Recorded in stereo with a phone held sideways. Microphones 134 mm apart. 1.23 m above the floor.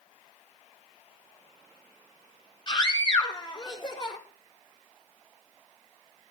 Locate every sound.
2.7 s a scream: 35° left (ahead or behind), 4.5 m